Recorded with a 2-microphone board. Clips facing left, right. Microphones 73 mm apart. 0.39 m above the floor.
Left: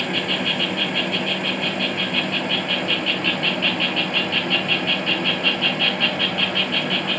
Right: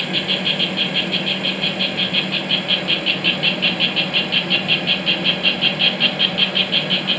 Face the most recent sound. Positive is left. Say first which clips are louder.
# even
turn(degrees=15)  # may be behind; listen again after turning